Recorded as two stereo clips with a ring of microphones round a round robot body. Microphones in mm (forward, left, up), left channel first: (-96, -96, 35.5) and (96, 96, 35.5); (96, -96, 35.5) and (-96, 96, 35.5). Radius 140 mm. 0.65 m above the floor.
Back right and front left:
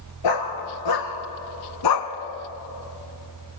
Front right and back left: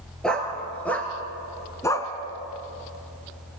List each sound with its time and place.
0.2 s a dog barking: 130° right, 2.5 m; by 2.1 s 120° right, 1.5 m